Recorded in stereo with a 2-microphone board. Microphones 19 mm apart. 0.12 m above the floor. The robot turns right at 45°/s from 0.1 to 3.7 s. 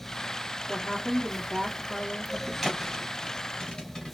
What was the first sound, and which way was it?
A woman speaking, 105° right.